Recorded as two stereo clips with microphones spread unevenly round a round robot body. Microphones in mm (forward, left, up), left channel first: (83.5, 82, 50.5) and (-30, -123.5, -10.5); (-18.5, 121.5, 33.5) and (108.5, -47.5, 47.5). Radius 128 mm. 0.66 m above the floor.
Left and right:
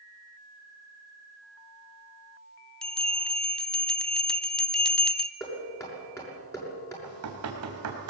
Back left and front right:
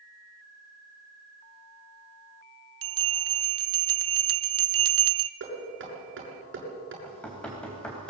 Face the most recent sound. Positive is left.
turn(degrees=-150)